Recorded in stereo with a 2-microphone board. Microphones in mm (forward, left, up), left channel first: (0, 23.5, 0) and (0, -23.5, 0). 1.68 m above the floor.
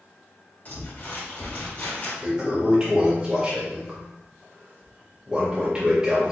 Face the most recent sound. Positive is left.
turn(degrees=-20)  # may be behind; listen again after turning